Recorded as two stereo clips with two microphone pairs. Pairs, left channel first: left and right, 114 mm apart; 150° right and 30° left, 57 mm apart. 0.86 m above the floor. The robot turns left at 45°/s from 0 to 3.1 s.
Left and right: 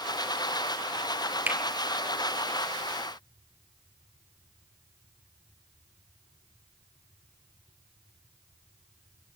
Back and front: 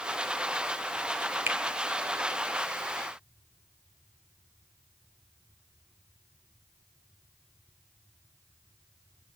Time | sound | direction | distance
1.5 | a finger snap | 15° right | 1.5 m